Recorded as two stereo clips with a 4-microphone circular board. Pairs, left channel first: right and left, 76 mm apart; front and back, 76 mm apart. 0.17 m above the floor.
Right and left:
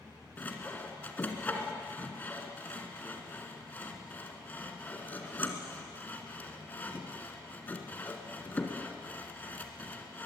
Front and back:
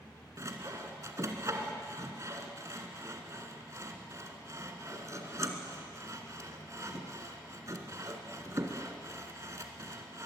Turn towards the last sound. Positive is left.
turn(degrees=-150)